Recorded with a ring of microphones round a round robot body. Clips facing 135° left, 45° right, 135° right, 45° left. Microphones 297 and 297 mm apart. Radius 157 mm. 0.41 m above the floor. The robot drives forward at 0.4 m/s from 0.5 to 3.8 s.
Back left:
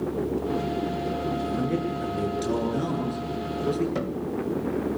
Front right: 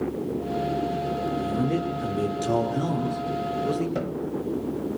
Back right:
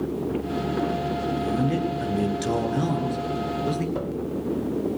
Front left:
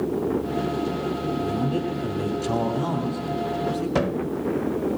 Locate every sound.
1.4 s a man speaking: 135° right, 8 m; by 3.9 s 140° right, 8.5 m
4.0 s a cupboard door: 50° left, 0.6 m